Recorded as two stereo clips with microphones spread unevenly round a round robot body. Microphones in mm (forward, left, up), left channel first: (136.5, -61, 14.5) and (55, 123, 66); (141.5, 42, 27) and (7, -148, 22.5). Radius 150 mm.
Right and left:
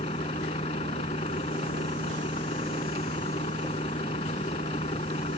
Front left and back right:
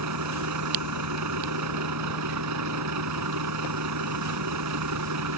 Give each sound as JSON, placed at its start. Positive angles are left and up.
{"t": 0.0, "sound": "a vehicle", "azimuth_deg": -140}